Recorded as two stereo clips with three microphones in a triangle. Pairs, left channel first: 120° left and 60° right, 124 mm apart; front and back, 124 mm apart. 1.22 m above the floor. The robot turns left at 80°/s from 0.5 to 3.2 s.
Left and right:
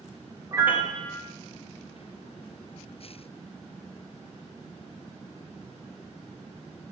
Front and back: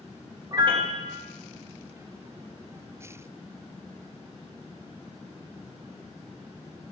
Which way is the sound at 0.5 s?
120° right.